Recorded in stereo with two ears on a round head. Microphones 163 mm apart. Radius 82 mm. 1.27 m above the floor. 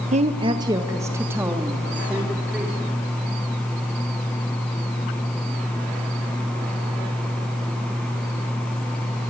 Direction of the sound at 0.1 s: 40° right (ahead or behind).